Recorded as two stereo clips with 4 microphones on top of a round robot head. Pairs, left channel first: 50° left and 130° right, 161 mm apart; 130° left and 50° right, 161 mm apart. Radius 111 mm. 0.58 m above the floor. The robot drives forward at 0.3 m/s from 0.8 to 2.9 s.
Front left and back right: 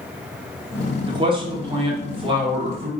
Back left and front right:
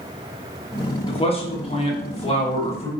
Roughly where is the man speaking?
Behind.